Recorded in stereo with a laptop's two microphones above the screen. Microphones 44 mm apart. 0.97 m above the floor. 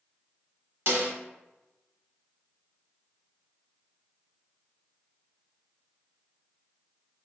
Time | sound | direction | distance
0.9 | a snare drum | 65° right (ahead or behind) | 1.0 m